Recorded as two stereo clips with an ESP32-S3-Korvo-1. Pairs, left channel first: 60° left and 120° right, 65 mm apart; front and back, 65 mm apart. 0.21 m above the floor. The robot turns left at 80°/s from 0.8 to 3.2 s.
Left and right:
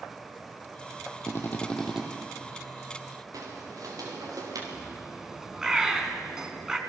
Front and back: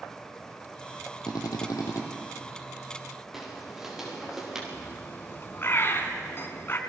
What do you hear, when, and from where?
1.3 s a drill: 20° left, 4 m; by 2.0 s 40° right, 4 m
3.3 s footsteps: 95° right, 7 m; by 4.6 s 100° right, 6.5 m
4.7 s a bird: 45° right, 2 m